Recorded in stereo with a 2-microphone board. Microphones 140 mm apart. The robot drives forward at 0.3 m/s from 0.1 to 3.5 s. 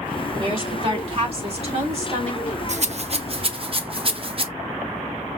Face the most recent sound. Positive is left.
turn(degrees=-40)  # may be behind; listen again after turning